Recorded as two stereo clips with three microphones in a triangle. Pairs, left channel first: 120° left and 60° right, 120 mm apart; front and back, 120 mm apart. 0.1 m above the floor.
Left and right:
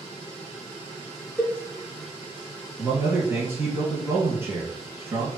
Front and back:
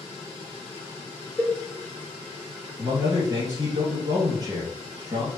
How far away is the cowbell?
About 0.8 m.